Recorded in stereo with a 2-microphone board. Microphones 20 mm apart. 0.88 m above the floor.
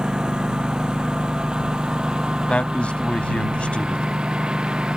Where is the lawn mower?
45° right (ahead or behind); by 5.0 s 50° right (ahead or behind).